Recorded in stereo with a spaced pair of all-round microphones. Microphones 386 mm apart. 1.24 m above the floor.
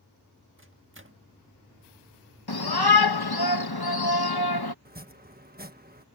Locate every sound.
0.6 s a microwave: 30° right (ahead or behind)
2.5 s a shout: 70° left (ahead or behind)
4.8 s chopping: 25° right (ahead or behind)